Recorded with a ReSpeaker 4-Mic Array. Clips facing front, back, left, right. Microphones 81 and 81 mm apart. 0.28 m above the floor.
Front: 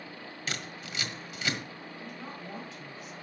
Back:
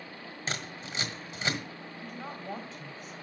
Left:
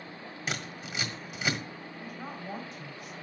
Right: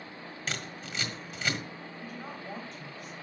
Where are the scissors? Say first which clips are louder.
Back 2 dB, left 2 dB; 160° left, 1.4 m.